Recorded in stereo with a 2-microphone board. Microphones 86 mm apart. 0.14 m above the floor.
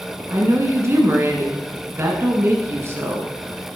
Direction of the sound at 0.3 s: 35° right (ahead or behind).